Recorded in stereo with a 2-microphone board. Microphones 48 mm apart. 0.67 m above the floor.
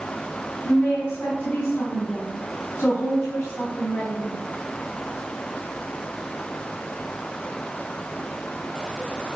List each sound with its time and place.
0.7 s a woman speaking: 60° left (ahead or behind), 4.5 m